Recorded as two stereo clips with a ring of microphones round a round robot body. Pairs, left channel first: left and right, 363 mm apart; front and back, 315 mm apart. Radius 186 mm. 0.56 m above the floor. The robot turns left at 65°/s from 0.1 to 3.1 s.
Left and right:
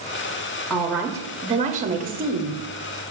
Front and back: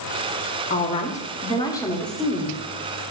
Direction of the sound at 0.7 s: 10° left.